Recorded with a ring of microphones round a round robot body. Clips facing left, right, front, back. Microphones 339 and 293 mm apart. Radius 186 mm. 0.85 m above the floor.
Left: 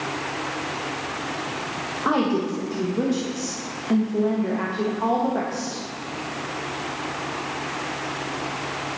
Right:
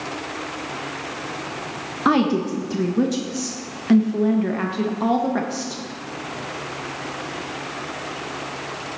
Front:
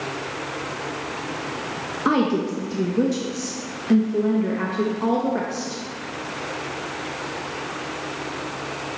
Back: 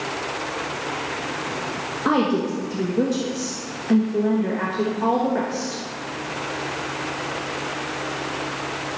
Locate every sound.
2.0 s a woman speaking: 75° right, 1.1 m